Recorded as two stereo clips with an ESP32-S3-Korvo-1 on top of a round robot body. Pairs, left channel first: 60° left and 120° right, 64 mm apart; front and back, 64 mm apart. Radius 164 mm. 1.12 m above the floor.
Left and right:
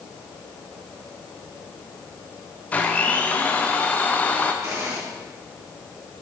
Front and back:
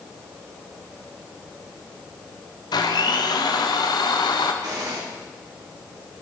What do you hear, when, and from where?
2.7 s a blender: 10° right, 1.5 m
4.6 s a gunshot: 165° right, 6 m